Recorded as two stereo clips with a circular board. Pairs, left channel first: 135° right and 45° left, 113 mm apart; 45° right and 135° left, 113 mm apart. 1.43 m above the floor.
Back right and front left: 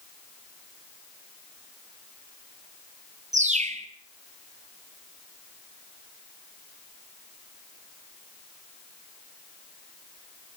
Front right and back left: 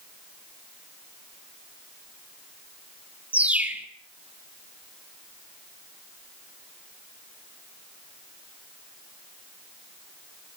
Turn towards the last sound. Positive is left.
turn(degrees=55)